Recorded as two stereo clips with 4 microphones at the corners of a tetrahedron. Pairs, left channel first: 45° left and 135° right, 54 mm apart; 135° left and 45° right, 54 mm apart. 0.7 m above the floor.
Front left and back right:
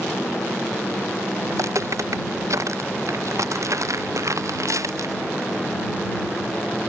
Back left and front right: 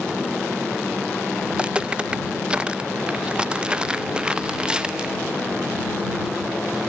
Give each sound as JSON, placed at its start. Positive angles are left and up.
{"t": 1.5, "sound": "footsteps", "azimuth_deg": -115}